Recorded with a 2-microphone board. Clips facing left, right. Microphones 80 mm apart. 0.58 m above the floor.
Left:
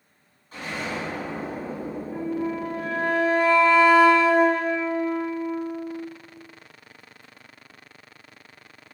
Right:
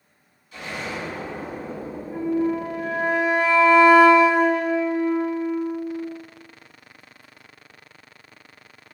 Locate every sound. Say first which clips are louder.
0.5 s an explosion: left 1 dB; 40° left (ahead or behind), 1.3 m
2.1 s a flute: right 6 dB; 15° right (ahead or behind), 1.0 m